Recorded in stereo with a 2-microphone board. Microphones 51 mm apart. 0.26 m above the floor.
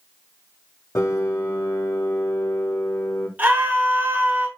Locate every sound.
0.9 s a piano: 90° left, 3 m
3.4 s a scream: 30° right (ahead or behind), 3.5 m